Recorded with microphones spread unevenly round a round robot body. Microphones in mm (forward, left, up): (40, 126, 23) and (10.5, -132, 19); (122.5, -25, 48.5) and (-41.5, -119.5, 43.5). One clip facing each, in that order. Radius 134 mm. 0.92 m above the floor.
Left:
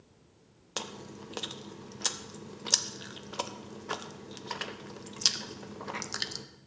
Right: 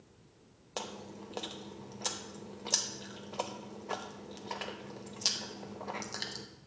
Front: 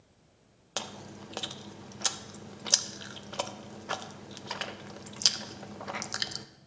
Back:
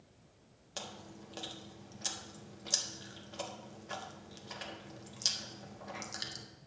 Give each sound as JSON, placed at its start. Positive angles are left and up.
{"t": 0.8, "sound": "chewing", "azimuth_deg": 20, "distance_m": 0.6}